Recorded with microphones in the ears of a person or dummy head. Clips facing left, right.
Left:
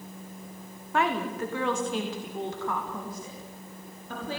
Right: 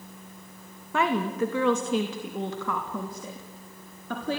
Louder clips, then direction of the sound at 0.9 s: Right 2 dB; 85° right.